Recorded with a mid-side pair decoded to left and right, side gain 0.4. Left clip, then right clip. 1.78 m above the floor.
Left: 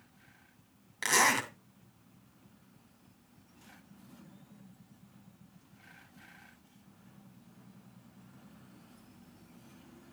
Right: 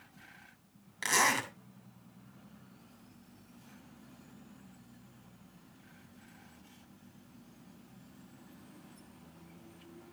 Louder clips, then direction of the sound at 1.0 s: Left 2 dB; 25° left.